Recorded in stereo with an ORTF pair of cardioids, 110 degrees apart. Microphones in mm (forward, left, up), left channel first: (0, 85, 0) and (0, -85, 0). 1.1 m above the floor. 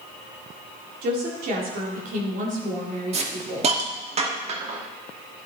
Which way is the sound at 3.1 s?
40° right.